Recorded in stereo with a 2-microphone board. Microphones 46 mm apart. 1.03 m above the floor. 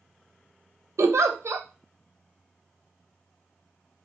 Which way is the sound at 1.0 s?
75° right (ahead or behind).